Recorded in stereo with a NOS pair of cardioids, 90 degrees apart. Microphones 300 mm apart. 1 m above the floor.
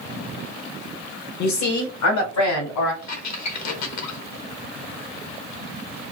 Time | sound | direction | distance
1.4 | a woman speaking | 70° left | 1.1 m
3.0 | a squeak | 65° left | 1.1 m